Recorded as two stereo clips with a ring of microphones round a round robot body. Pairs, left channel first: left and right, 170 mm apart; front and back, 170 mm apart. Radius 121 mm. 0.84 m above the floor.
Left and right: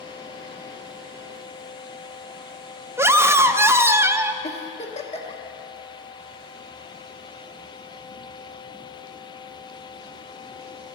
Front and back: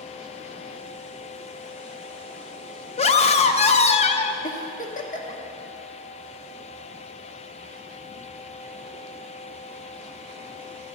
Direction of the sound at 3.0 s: 20° right.